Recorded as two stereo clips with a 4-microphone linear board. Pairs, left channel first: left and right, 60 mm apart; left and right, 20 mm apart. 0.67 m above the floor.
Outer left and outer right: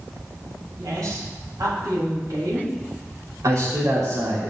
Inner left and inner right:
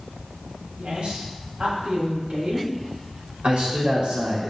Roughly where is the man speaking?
Right.